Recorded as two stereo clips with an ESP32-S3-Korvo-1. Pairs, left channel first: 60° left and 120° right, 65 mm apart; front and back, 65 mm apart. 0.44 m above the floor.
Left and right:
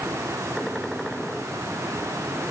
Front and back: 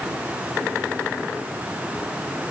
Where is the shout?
I don't hear a shout.